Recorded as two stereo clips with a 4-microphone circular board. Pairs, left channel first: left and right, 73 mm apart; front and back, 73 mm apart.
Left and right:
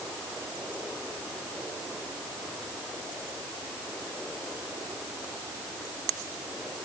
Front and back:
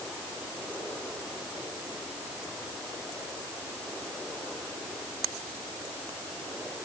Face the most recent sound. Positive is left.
No sound to turn to.